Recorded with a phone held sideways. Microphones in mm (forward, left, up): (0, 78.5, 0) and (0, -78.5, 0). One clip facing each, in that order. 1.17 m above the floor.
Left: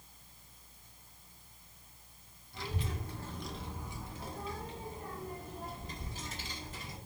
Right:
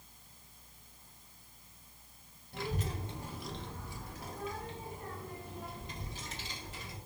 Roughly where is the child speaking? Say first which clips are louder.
Right 2 dB; right.